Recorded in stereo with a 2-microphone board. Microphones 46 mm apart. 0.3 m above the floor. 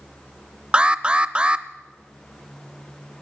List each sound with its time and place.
0.7 s an alarm: 20° right (ahead or behind), 0.6 m